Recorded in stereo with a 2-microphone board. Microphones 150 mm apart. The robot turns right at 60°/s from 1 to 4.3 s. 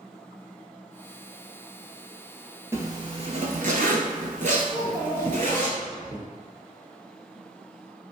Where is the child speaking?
20° right (ahead or behind), 1.1 m.